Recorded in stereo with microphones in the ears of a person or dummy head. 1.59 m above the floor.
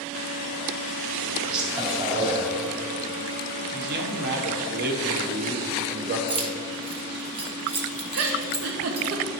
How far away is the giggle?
About 0.8 m.